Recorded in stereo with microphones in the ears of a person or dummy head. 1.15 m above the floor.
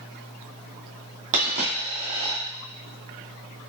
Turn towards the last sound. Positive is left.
turn(degrees=-35)  # may be behind; listen again after turning